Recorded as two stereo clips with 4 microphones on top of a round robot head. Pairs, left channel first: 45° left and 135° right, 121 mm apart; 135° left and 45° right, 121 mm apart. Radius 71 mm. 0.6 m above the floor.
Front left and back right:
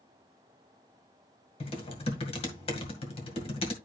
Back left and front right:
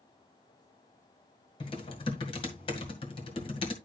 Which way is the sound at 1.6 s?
85° left.